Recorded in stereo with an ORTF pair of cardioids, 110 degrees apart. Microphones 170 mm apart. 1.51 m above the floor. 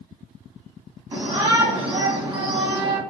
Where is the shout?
35° right, 1.2 m.